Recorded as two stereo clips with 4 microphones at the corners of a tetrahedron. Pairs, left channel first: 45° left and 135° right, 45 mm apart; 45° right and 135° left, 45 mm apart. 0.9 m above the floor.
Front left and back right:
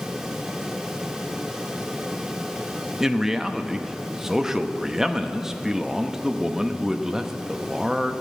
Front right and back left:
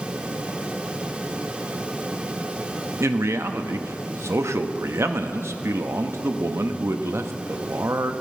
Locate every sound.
3.0 s a man speaking: 145° left, 0.8 m